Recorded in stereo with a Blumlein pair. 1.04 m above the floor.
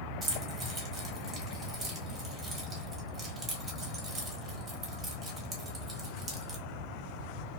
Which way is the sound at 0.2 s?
15° right.